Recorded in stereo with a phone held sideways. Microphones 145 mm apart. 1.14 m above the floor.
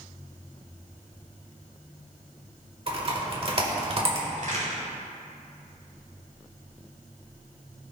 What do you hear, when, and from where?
2.9 s typing on a keyboard: 40° right (ahead or behind), 1.5 m
4.4 s a crack: 65° right (ahead or behind), 3 m